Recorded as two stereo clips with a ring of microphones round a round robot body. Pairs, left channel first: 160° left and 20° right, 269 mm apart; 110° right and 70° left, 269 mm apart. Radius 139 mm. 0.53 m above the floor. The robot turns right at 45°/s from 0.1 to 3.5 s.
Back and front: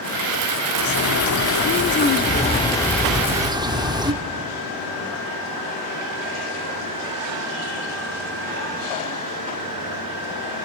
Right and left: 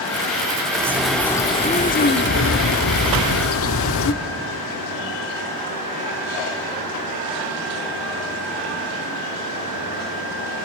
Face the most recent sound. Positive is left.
turn(degrees=-95)